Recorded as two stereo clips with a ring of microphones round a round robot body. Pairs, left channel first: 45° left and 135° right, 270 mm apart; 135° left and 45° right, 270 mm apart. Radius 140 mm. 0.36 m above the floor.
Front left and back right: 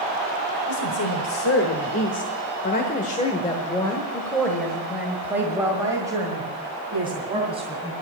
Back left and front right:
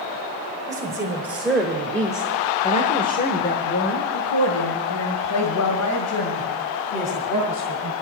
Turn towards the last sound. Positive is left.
turn(degrees=155)